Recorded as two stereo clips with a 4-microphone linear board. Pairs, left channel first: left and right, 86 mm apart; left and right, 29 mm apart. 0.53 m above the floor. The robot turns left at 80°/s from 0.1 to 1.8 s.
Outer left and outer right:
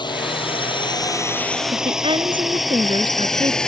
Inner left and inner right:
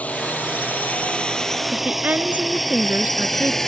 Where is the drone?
60° left (ahead or behind); by 3.7 s 10° left (ahead or behind).